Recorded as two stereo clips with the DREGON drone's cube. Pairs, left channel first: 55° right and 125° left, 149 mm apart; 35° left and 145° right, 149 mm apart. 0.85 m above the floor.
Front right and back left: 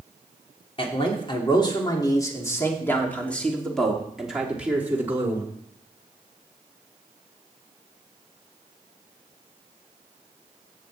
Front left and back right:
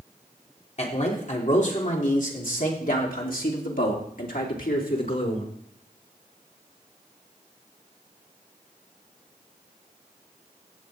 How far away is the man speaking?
About 3 m.